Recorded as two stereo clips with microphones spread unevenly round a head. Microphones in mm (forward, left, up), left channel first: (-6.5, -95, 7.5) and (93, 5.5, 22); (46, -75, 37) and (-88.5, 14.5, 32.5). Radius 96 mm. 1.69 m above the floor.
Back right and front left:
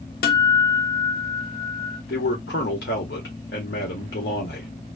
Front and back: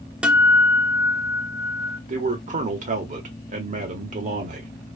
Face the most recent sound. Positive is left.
turn(degrees=-170)